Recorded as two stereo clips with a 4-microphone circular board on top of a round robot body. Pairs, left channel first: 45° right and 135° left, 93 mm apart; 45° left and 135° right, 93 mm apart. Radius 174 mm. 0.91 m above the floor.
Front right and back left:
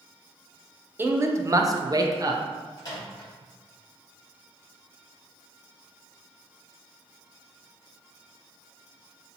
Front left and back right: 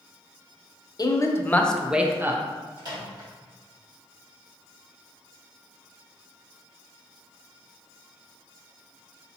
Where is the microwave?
90° right, 2.0 m.